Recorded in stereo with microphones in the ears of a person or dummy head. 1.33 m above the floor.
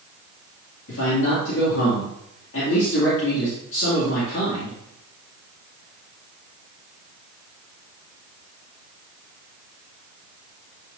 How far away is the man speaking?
About 2.5 m.